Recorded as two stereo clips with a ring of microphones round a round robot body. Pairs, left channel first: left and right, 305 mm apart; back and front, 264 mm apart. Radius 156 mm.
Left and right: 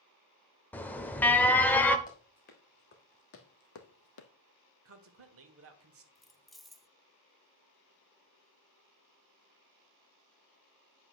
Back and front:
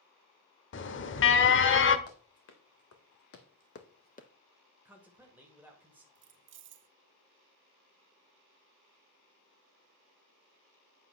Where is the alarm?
170° left, 0.9 m.